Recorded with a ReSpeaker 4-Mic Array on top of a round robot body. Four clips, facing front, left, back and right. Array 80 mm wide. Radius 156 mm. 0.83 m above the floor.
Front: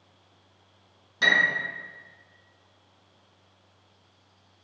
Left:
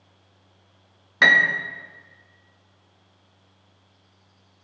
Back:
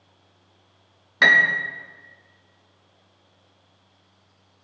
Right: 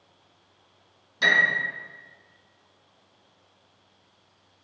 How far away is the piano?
About 1.1 m.